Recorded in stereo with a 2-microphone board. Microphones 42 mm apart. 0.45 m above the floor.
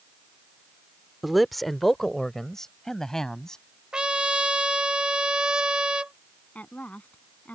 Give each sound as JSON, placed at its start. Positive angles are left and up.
{"t": 1.2, "sound": "a man speaking", "side_deg": -5}
{"t": 3.9, "sound": "a trumpet", "side_deg": -25}
{"t": 6.5, "sound": "a woman speaking", "side_deg": 40}